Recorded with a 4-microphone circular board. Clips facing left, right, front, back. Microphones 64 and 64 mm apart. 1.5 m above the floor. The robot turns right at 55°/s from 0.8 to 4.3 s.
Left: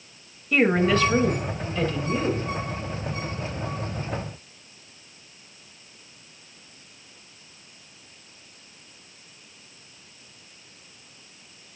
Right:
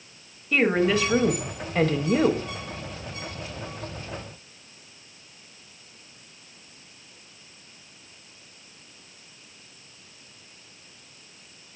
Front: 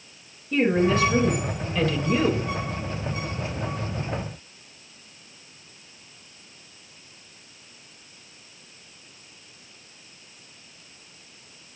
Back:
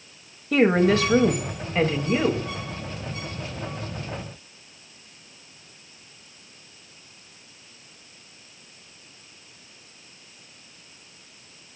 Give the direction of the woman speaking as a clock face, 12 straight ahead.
6 o'clock.